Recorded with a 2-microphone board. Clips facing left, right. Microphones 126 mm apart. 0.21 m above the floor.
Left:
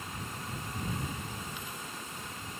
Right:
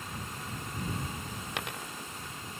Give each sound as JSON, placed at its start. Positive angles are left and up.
{"t": 1.6, "sound": "a dropped coin", "side_deg": -75}